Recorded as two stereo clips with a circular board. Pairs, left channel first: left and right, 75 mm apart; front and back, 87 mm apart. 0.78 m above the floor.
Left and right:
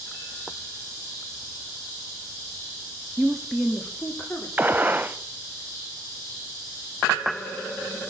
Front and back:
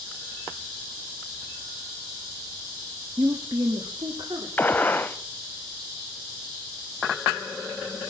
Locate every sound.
3.2 s a woman speaking: 160° right, 1.1 m; by 4.5 s 155° left, 2.5 m
4.6 s a gunshot: 45° right, 0.6 m